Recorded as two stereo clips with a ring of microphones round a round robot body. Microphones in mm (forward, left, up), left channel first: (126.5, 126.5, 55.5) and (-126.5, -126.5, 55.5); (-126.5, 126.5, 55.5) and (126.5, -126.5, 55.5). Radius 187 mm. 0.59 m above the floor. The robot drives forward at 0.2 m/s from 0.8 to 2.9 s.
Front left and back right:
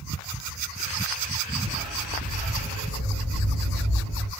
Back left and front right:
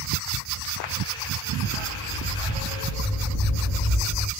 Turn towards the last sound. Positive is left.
turn(degrees=150)